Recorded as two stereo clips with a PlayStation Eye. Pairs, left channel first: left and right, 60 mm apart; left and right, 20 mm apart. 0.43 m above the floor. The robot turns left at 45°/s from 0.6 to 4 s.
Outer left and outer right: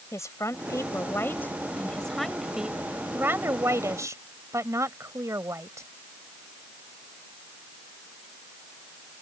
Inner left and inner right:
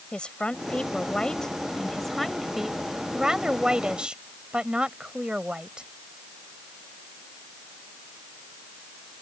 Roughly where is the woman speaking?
Left.